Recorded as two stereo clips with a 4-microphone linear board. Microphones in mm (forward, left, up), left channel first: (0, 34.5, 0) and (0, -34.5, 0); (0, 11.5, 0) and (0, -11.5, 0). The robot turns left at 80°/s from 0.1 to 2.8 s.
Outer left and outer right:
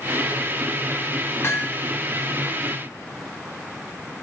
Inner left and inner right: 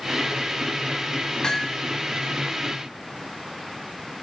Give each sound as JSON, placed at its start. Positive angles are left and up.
{"t": 1.4, "sound": "hammering", "side_deg": 35, "distance_m": 2.5}